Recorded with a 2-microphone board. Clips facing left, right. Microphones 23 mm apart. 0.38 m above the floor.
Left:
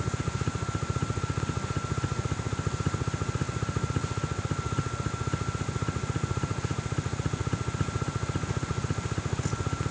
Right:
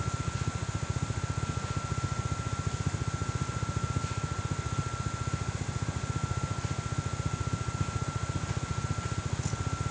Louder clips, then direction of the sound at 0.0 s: Left 3 dB; 50° left (ahead or behind).